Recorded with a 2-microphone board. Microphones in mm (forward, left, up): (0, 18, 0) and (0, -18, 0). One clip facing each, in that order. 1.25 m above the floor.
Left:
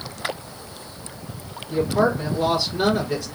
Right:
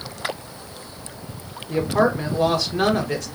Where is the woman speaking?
65° right (ahead or behind), 1.1 m.